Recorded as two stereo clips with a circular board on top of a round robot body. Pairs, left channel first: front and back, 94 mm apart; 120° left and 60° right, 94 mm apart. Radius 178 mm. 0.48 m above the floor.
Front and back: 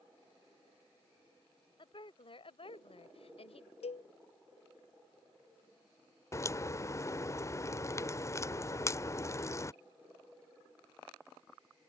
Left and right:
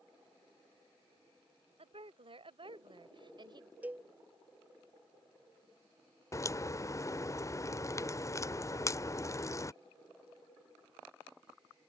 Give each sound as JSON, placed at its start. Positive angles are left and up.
{"t": 1.8, "sound": "a woman speaking", "azimuth_deg": -35}
{"t": 3.8, "sound": "a cowbell", "azimuth_deg": 15}
{"t": 6.3, "sound": "a crack", "azimuth_deg": 60}